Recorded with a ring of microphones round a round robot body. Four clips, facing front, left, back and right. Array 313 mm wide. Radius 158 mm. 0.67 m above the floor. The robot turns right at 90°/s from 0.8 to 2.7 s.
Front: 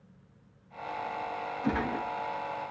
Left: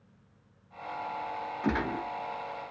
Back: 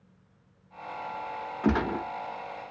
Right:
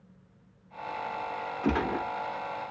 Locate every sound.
1.6 s a gunshot: 170° right, 0.7 m; by 2.1 s 130° right, 0.7 m